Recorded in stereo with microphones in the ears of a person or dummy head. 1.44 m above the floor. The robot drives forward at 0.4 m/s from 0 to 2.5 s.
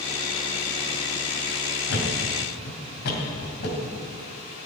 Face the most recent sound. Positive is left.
turn(degrees=65)  # may be behind; listen again after turning